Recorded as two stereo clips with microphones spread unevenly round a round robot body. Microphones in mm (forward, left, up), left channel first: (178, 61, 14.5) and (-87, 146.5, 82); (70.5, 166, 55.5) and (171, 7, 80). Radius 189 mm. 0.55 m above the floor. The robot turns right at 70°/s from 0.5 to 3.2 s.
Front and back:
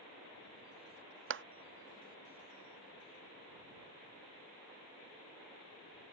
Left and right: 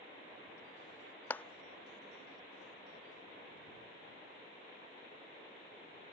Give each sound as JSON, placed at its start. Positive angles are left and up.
{"t": 1.3, "sound": "a clap", "azimuth_deg": 170}